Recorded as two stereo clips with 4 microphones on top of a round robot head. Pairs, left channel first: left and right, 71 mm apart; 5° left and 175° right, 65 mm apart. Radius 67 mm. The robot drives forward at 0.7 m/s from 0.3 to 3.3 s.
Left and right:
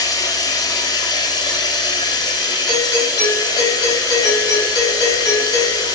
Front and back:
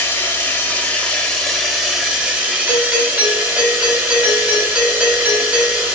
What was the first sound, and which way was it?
Running water, 65° left.